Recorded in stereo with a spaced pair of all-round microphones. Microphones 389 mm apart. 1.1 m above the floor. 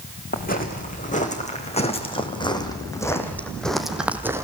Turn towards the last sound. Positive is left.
turn(degrees=-5)  # may be behind; listen again after turning